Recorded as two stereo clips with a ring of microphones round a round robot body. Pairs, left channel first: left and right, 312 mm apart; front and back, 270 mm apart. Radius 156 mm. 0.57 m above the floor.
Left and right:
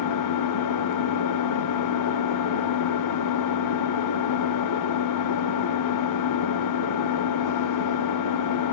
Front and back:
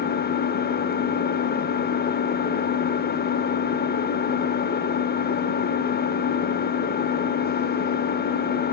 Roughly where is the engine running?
Ahead left.